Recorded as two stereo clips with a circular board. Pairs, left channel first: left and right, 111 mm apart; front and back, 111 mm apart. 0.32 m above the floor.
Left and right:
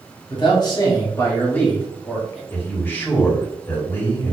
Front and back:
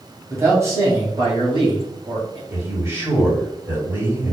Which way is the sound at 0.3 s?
115° left.